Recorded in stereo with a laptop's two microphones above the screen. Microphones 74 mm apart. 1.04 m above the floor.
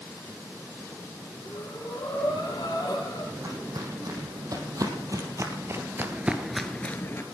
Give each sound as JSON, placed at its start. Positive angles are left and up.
{"t": 1.4, "sound": "breathing", "side_deg": 65, "distance_m": 4.5}
{"t": 3.4, "sound": "footsteps", "side_deg": -65, "distance_m": 4.0}